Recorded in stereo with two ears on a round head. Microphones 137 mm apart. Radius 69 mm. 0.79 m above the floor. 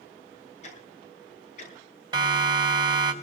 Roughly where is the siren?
Right.